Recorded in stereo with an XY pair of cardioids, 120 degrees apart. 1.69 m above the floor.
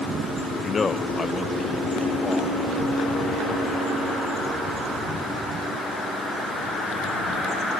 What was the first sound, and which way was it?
A man speaking, 30° left.